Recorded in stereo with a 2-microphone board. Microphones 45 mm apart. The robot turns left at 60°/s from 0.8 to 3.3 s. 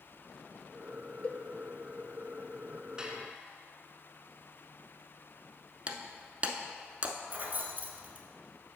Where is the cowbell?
30° left (ahead or behind), 0.5 m; by 1.4 s 20° left (ahead or behind), 0.5 m.